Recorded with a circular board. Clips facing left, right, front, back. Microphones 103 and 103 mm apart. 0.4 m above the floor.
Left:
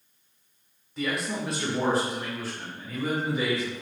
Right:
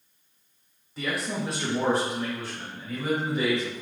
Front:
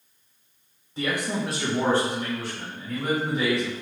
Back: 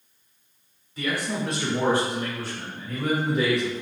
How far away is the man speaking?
About 0.8 m.